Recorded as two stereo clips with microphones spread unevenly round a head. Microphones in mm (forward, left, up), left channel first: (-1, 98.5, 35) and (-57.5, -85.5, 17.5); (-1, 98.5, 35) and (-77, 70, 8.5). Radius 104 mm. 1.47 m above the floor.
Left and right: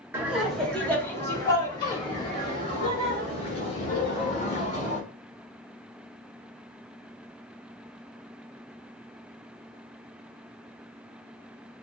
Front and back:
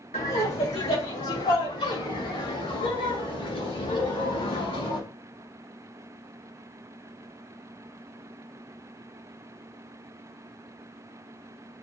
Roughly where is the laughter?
Ahead right.